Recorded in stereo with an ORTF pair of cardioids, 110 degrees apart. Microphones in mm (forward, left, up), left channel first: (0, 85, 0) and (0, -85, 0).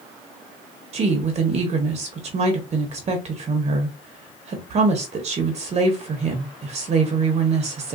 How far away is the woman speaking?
About 0.9 m.